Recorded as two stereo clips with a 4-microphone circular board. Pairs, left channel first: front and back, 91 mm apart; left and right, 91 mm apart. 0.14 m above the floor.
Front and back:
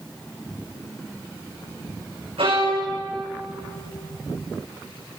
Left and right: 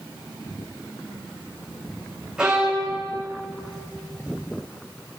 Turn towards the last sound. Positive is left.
turn(degrees=-170)